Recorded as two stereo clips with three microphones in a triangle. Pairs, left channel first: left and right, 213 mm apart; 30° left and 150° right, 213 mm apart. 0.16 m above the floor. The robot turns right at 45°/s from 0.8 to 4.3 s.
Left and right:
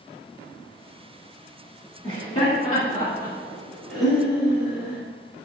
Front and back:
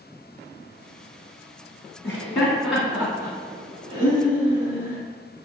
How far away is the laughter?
About 1.6 m.